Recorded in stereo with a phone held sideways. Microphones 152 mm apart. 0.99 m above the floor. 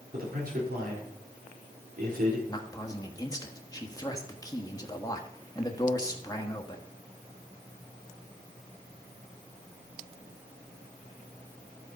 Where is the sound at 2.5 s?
20° left (ahead or behind), 1.2 m.